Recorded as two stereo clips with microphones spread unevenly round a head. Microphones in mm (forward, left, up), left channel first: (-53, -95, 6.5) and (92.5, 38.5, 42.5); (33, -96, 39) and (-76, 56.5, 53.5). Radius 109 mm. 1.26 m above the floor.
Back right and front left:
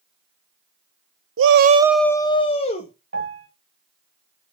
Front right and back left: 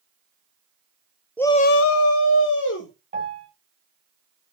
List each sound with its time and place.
1.4 s a shout: 30° left, 0.6 m; by 2.9 s 80° right, 1.6 m
3.1 s a piano: 65° left, 1.9 m